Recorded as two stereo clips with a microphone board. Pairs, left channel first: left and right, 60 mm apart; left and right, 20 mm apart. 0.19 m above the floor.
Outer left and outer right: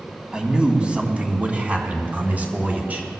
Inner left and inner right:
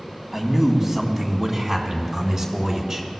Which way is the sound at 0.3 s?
15° right (ahead or behind).